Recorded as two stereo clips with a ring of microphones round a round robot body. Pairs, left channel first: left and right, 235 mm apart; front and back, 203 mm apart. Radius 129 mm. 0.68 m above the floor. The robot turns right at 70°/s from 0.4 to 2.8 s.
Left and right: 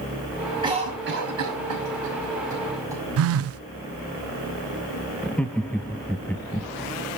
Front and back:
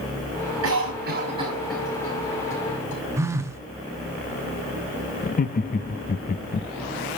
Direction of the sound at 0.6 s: 165° right.